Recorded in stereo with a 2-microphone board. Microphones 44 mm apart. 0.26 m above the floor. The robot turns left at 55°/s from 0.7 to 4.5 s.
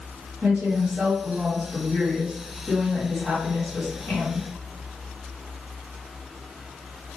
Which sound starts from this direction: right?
A woman speaking, at 0.4 s.